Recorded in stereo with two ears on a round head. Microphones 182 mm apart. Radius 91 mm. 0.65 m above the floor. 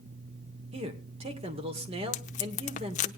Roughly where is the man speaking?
Right.